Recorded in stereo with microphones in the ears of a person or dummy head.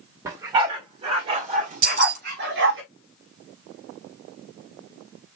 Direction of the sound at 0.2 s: 20° right (ahead or behind).